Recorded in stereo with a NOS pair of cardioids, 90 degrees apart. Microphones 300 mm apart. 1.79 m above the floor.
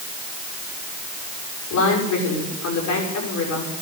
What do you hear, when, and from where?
1.7 s a woman speaking: 70° left, 6.5 m